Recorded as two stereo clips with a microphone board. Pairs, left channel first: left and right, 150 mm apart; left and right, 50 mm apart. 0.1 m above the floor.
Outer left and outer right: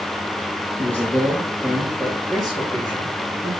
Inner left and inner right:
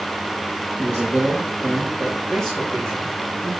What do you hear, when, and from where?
0.8 s a man speaking: 15° right (ahead or behind), 3 m; by 3.5 s 10° left (ahead or behind), 4.5 m